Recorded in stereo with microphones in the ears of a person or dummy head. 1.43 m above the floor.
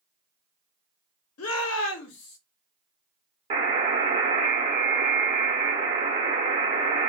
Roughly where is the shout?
Left.